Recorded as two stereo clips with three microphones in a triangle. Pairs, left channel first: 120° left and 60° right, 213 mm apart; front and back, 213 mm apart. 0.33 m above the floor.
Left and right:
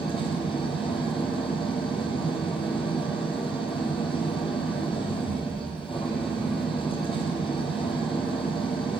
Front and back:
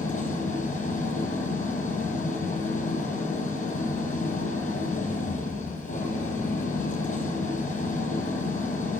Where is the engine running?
55° left, 3.5 m.